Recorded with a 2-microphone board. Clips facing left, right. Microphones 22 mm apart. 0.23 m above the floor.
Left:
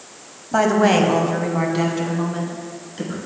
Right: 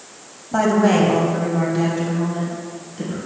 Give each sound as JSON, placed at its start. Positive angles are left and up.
{"t": 0.5, "sound": "a woman speaking", "side_deg": 20, "distance_m": 1.1}